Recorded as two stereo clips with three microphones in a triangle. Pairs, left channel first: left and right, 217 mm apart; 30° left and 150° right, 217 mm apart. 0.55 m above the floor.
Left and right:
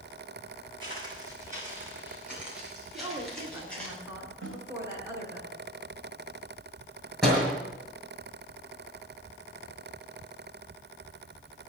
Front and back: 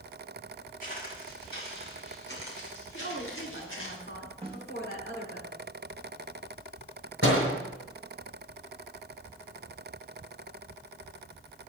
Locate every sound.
0.8 s footsteps: 20° right, 5.5 m; by 3.9 s 5° left, 8 m
2.9 s a woman speaking: 15° right, 5 m
4.4 s a snare drum: 85° right, 3 m
7.2 s a door slam: straight ahead, 6 m